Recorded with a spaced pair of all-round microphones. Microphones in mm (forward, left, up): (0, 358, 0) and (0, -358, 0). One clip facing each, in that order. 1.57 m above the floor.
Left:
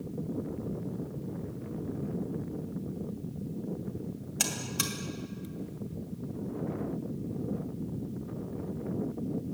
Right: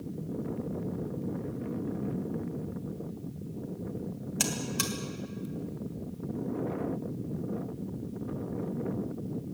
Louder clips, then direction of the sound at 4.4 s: Right 4 dB; centre (ahead or behind).